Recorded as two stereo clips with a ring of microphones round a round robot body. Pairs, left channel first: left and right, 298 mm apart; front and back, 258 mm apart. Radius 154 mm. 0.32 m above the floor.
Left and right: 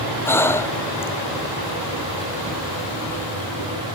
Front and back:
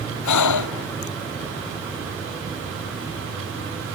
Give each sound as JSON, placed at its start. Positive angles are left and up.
{"t": 0.2, "sound": "breathing", "azimuth_deg": 10}